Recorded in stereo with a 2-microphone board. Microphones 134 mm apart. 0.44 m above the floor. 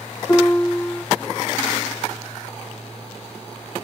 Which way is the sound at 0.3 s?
20° left (ahead or behind).